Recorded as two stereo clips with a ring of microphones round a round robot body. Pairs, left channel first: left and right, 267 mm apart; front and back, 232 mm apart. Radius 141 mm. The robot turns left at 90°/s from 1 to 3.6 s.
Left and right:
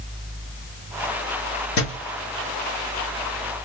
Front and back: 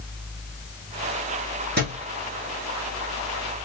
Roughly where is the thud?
Behind left.